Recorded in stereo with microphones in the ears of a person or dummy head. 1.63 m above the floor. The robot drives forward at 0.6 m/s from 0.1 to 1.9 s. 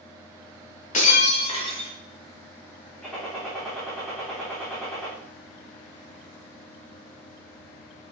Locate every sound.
0.9 s breaking glass: 45° left (ahead or behind), 1.3 m; by 1.9 s 30° left (ahead or behind), 1.7 m
3.0 s a gunshot: 5° left (ahead or behind), 3 m